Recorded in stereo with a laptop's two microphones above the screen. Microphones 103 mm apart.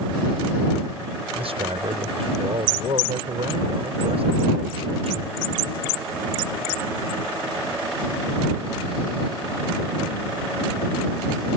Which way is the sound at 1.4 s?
70° right (ahead or behind).